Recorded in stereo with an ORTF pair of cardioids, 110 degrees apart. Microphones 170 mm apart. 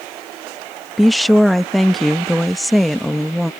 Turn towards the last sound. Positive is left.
turn(degrees=0)